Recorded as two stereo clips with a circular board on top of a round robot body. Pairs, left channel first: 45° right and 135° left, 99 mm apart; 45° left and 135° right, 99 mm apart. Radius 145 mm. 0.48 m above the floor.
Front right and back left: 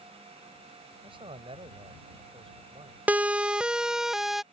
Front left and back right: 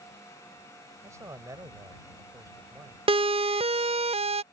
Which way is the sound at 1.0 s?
165° left.